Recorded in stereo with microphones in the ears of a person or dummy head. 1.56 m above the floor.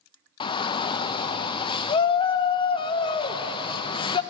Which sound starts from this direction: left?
A shout, at 0.4 s.